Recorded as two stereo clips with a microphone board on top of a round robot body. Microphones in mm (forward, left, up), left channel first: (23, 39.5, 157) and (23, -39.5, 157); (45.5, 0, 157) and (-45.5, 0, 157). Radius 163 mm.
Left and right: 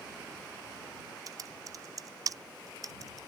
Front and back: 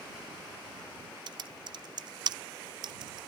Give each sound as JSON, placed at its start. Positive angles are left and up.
{"t": 1.3, "sound": "typing on a keyboard", "azimuth_deg": -140}